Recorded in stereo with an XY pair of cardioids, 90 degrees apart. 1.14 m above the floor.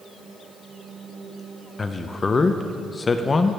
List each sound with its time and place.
1.8 s a man speaking: 35° left, 0.5 m